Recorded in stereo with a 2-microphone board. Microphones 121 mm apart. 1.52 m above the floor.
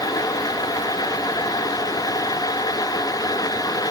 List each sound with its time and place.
Only background noise.